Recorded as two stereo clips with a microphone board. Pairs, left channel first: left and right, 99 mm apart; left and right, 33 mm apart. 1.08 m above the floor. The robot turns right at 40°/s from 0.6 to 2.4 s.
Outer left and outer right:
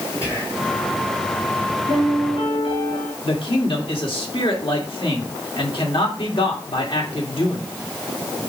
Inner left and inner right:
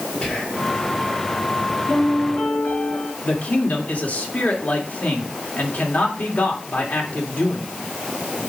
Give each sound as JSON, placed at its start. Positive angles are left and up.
{"t": 0.2, "sound": "whispering", "side_deg": 30, "distance_m": 3.0}
{"t": 1.9, "sound": "a piano", "side_deg": 80, "distance_m": 5.5}
{"t": 3.2, "sound": "a man speaking", "side_deg": 60, "distance_m": 2.5}